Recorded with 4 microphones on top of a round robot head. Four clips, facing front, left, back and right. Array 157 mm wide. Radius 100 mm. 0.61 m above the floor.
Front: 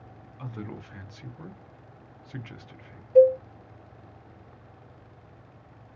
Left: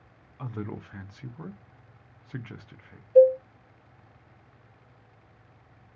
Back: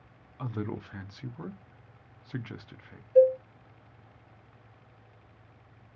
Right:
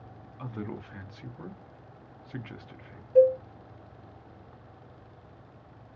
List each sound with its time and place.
0.4 s a man speaking: 160° left, 0.5 m
3.1 s a cowbell: straight ahead, 1.3 m